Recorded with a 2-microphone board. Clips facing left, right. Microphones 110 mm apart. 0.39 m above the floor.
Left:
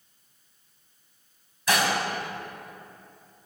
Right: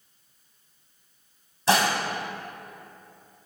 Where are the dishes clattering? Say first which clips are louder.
Right 3 dB; 30° right (ahead or behind), 1.7 m.